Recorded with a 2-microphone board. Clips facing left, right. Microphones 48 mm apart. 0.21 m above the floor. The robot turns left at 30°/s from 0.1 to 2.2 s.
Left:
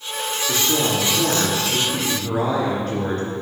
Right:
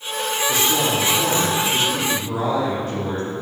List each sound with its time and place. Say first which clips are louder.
0.5 s a woman speaking: even; 125° left, 3.5 m; by 3.3 s 70° left, 3.5 m